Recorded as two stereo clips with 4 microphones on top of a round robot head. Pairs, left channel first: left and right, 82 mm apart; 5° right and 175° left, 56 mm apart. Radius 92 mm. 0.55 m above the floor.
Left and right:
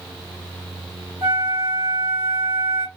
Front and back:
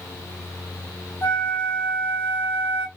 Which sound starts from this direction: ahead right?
A flute, at 1.2 s.